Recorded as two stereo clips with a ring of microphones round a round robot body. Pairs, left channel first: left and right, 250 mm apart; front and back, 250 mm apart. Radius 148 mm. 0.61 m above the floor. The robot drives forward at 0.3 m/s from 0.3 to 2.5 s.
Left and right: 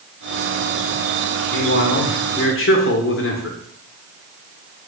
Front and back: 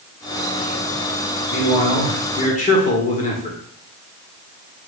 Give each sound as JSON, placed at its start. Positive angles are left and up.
{"t": 1.5, "sound": "a man speaking", "azimuth_deg": 50, "distance_m": 2.0}